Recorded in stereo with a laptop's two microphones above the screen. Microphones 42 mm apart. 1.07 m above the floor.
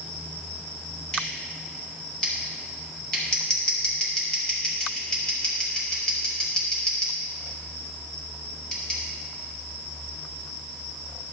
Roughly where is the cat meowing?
I don't hear a cat meowing.